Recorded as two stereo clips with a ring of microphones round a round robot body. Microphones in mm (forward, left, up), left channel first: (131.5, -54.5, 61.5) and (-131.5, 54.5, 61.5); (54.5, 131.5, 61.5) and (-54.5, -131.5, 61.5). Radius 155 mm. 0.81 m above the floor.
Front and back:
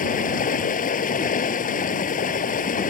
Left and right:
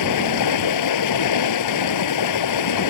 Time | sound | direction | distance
0.0 | running water | 40° left | ?